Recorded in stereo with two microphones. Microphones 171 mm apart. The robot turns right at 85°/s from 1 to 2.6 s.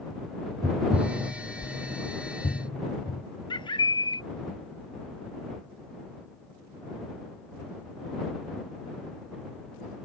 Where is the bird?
30° left (ahead or behind).